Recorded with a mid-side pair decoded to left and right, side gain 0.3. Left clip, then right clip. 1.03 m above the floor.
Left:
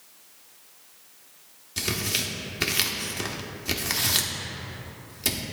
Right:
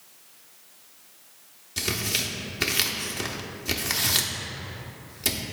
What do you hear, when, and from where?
1.8 s tearing paper: straight ahead, 0.9 m